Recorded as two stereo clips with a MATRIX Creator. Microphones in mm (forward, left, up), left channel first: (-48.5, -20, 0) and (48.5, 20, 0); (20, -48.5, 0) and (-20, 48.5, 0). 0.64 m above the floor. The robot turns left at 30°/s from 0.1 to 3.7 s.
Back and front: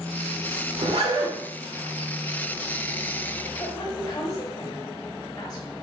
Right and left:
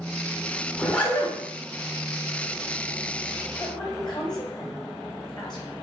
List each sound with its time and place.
0.7 s a zipper: 20° left, 1.6 m; by 1.4 s straight ahead, 1.6 m
3.6 s a woman speaking: 105° right, 3.5 m; by 5.7 s 110° right, 3.5 m